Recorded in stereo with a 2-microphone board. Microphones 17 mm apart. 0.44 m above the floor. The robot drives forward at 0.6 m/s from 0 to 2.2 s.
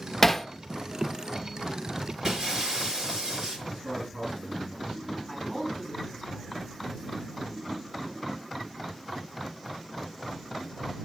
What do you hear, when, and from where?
0.2 s hammering: 10° left (ahead or behind), 0.9 m
2.2 s breaking glass: 30° right (ahead or behind), 3 m
3.7 s a man speaking: 55° right (ahead or behind), 6 m
5.3 s a man speaking: centre (ahead or behind), 4.5 m